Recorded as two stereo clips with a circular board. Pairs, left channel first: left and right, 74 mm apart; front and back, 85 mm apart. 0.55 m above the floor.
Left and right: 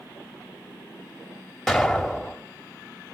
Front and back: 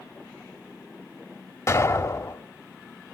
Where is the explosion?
5° left, 1.4 m.